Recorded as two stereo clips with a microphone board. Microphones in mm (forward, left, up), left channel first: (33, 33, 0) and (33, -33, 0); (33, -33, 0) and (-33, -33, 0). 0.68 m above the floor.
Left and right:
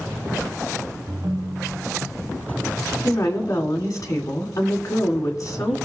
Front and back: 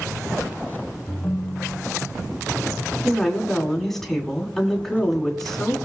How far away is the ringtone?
About 0.9 m.